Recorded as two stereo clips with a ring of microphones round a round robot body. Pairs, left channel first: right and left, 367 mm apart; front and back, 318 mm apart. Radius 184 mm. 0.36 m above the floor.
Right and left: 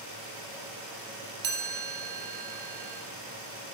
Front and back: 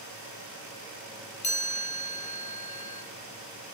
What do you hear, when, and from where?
1.4 s a chime: 65° left, 1.3 m